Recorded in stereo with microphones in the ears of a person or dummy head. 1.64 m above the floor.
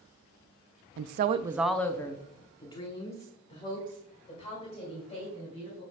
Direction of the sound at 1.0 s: 60° right (ahead or behind).